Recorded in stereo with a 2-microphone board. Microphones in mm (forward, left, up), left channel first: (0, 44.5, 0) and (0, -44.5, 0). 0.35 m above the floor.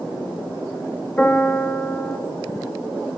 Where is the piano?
10° left (ahead or behind), 2 m.